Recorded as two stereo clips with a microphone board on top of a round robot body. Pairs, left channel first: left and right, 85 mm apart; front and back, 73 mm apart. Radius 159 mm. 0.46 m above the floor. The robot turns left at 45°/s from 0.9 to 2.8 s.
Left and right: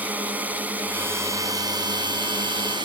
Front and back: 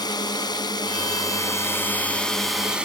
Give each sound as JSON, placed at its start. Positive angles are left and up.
{"t": 0.0, "sound": "a drone", "azimuth_deg": -20}